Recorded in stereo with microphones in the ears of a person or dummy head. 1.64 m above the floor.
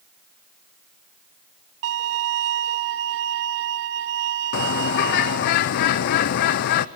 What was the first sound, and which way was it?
A violin, 60° right (ahead or behind).